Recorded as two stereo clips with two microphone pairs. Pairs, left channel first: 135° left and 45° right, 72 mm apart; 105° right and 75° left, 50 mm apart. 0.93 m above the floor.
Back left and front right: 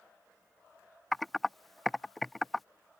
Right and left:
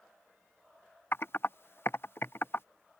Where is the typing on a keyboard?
135° right.